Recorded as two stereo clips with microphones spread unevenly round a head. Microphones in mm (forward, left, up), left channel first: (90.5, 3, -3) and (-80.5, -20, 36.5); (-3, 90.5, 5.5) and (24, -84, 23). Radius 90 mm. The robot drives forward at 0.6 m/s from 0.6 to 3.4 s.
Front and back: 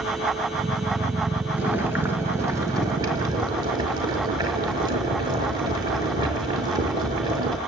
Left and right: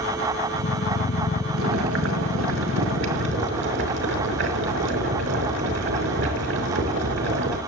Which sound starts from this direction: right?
Boiling, at 1.6 s.